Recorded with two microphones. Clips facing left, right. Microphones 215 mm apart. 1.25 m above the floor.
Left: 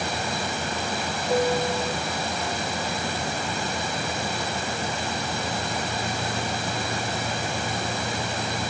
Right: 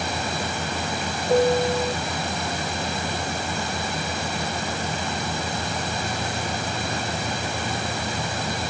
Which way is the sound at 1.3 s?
20° right (ahead or behind).